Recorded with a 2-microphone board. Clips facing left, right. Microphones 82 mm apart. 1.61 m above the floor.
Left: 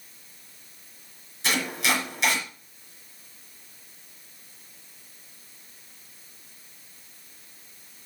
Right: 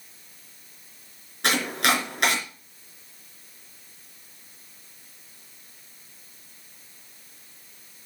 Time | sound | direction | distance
1.4 | chopping | 60° right (ahead or behind) | 3.5 m